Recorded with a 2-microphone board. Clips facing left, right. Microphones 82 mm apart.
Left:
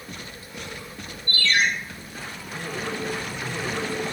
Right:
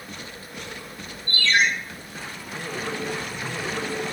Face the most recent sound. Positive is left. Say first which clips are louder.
# right 2 dB
turn(degrees=-45)  # may be behind; listen again after turning